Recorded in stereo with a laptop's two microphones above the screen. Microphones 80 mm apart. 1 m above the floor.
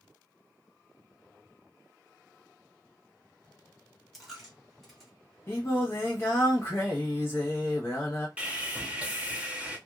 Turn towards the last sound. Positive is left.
turn(degrees=-15)  # may be behind; listen again after turning